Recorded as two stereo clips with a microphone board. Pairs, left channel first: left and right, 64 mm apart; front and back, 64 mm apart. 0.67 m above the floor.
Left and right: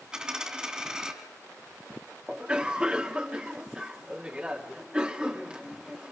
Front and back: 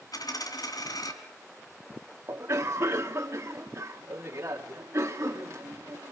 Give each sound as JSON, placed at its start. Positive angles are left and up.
{"t": 0.1, "sound": "a dropped coin", "azimuth_deg": -10, "distance_m": 2.5}
{"t": 2.3, "sound": "a cough", "azimuth_deg": -155, "distance_m": 1.4}